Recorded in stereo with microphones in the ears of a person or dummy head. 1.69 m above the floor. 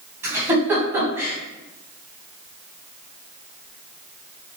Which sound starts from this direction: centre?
A giggle, at 0.2 s.